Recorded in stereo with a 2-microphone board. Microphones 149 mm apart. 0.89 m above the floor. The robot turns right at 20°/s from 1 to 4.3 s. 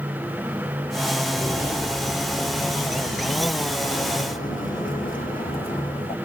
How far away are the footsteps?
About 0.9 m.